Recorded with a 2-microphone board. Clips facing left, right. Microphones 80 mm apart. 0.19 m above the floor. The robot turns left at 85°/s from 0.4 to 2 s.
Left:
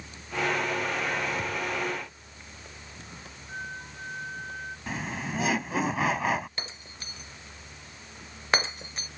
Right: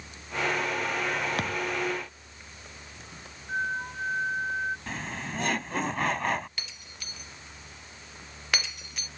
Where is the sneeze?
I don't hear a sneeze.